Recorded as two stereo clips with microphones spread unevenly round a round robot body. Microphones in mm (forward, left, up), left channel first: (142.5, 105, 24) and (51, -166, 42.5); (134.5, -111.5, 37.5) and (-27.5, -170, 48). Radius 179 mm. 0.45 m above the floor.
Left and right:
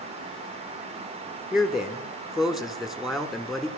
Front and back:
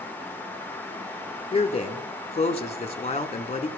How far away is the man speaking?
About 1.1 m.